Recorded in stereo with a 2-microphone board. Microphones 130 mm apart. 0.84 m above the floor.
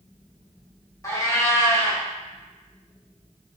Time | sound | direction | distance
1.0 | a cat meowing | 25° left (ahead or behind) | 0.8 m